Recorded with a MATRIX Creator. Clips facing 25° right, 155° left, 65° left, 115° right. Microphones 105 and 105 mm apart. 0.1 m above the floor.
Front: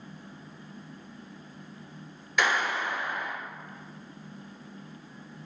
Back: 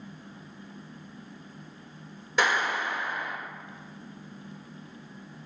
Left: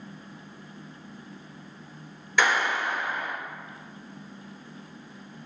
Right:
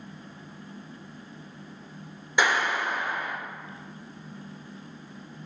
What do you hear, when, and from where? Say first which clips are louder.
2.4 s a clap: back 1 dB, even; 165° right, 1.8 m